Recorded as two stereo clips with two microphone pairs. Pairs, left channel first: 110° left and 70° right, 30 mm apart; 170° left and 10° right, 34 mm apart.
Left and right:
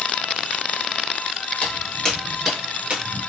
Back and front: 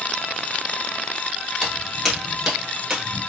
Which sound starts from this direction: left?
Footsteps, at 1.6 s.